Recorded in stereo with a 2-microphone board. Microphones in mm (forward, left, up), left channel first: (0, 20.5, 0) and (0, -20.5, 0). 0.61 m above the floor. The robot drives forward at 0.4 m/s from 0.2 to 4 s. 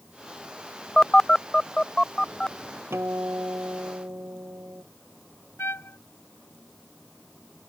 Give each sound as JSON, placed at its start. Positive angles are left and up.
{"t": 1.0, "sound": "a phone buzzing", "side_deg": 20}
{"t": 2.9, "sound": "a guitar", "side_deg": -80}
{"t": 5.6, "sound": "a trumpet", "side_deg": 85}